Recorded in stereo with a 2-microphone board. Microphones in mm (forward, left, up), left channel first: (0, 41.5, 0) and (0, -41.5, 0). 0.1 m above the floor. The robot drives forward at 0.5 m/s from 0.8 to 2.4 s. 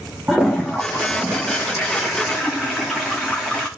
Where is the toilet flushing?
Centre (ahead or behind), 5 m.